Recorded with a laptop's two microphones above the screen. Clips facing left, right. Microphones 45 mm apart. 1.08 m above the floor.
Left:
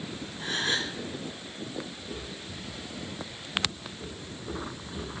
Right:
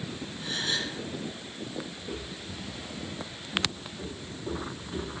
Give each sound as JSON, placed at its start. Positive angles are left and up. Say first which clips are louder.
{"t": 0.4, "sound": "a gasp", "louder": "left 3 dB", "side_deg": 75, "distance_m": 2.0}
{"t": 2.0, "sound": "footsteps", "louder": "right 1 dB", "side_deg": -30, "distance_m": 3.0}